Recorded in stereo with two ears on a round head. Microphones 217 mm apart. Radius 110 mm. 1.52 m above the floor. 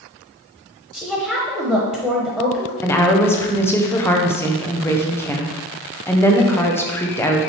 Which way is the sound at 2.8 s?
10° left (ahead or behind).